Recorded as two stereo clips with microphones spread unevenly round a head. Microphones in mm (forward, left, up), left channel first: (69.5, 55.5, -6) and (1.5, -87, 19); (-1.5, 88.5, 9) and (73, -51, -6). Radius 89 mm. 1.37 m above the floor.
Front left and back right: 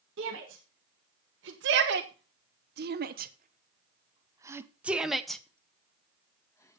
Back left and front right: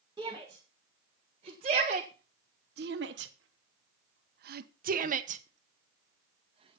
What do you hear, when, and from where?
0.2 s a shout: 135° right, 2 m; by 6.8 s 5° right, 1.9 m